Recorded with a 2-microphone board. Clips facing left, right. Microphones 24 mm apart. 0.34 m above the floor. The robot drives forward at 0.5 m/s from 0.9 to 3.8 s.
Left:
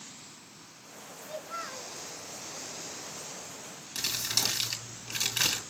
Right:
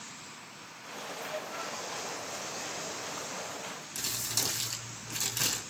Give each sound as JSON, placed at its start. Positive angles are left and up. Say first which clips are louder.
{"t": 1.2, "sound": "a child speaking", "louder": "left 1 dB", "side_deg": 50, "distance_m": 3.0}
{"t": 4.0, "sound": "crumpling", "louder": "left 4 dB", "side_deg": 35, "distance_m": 4.0}